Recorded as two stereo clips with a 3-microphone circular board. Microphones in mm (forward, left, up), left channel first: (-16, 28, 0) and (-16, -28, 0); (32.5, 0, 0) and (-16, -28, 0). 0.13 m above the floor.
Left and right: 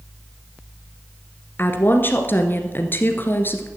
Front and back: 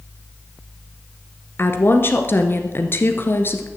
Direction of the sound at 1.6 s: 55° left.